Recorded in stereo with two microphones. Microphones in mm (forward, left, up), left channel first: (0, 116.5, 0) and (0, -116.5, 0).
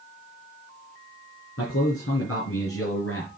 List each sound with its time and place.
1.6 s a man speaking: 70° left (ahead or behind), 5.5 m